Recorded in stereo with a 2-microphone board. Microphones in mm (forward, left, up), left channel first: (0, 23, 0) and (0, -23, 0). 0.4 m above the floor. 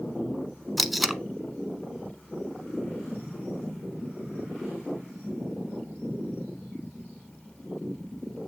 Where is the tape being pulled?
Centre (ahead or behind), 0.5 m.